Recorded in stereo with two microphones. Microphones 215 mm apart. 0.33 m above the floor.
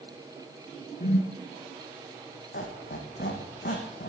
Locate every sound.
1.0 s a whoosh: 40° left (ahead or behind), 2.5 m
2.5 s a squeak: 45° left (ahead or behind), 3 m